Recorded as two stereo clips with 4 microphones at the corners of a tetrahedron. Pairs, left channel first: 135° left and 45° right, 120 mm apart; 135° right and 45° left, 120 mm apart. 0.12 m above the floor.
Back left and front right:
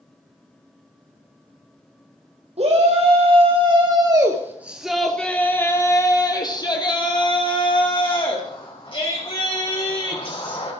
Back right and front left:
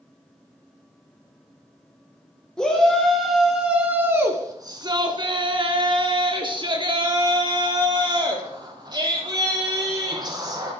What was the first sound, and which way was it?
A shout, 55° right.